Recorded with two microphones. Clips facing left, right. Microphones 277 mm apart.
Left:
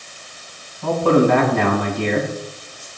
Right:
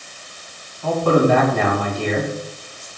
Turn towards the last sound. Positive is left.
turn(degrees=75)  # may be behind; listen again after turning